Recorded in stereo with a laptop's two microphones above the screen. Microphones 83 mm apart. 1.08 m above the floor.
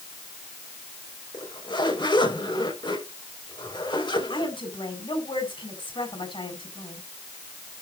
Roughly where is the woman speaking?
Left.